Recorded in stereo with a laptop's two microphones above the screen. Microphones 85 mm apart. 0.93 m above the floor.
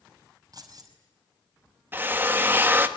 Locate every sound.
0.5 s keys jangling: 50° right (ahead or behind), 5 m
1.9 s a drill: 25° right (ahead or behind), 1.1 m